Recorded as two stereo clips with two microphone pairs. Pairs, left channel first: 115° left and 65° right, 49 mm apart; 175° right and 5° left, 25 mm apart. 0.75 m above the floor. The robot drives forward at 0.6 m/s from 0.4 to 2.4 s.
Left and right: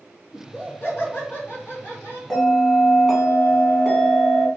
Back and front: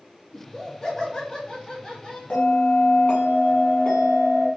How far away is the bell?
About 1.6 m.